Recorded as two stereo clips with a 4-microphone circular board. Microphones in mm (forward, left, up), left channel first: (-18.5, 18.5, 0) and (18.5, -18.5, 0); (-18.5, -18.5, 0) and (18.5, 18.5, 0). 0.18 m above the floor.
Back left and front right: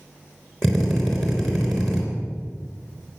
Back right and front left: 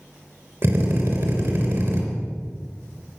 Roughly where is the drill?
Ahead left.